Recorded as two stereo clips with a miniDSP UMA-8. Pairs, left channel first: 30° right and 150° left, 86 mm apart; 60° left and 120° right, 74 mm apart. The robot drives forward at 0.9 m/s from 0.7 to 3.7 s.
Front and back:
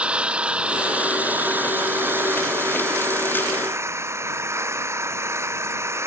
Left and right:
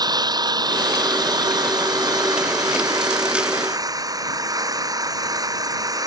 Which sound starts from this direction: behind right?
An engine running, at 0.0 s.